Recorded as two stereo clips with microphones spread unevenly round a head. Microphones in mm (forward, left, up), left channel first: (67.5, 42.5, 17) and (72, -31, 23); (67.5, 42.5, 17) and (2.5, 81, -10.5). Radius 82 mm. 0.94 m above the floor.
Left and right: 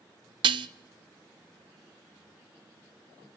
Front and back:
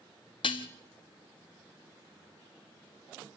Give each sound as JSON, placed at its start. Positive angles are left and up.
{"t": 0.4, "sound": "dishes clattering", "azimuth_deg": -85, "distance_m": 0.7}